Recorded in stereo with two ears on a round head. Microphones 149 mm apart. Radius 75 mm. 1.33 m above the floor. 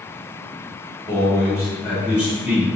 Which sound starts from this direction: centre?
A man speaking, at 1.1 s.